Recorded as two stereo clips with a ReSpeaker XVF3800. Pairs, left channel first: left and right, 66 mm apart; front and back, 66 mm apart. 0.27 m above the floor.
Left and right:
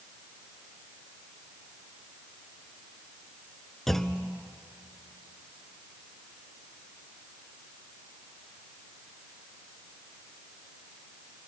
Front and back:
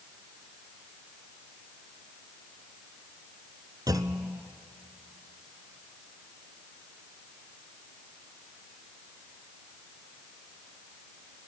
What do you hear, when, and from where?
3.9 s a clunk: 175° left, 1.0 m